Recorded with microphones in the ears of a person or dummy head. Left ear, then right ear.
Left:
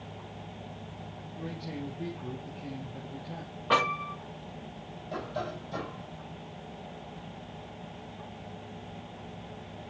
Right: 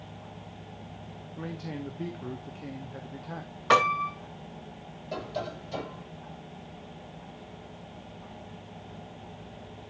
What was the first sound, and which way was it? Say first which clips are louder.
A man speaking: right 1 dB; 45° right (ahead or behind).